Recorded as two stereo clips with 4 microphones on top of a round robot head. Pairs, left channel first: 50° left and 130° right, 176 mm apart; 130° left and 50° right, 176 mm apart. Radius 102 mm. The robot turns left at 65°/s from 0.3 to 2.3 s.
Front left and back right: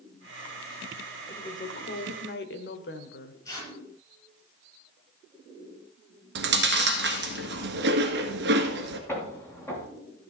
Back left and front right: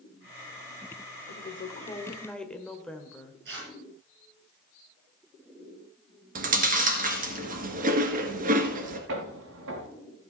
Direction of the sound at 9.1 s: 30° right.